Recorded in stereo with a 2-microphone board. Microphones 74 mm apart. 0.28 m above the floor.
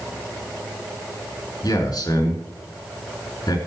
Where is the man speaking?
65° left (ahead or behind), 3.5 m.